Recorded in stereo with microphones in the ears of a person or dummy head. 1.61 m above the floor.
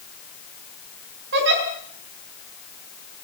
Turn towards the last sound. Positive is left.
turn(degrees=-55)  # may be behind; listen again after turning